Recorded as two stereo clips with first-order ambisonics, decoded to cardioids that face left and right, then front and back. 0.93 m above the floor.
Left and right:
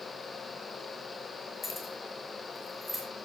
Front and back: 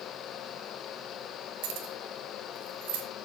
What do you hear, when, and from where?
1.6 s keys jangling: 170° left, 3.5 m; by 3.0 s straight behind, 3 m